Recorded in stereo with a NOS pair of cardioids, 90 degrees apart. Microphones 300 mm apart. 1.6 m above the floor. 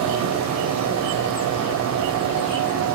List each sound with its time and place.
0.0 s a machine running: 65° right, 1.0 m